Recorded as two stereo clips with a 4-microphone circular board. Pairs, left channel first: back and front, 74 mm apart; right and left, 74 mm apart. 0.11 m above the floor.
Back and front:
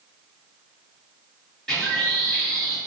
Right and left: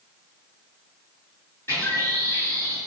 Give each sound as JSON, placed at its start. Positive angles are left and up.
{"t": 1.7, "sound": "a bird", "azimuth_deg": -110, "distance_m": 1.5}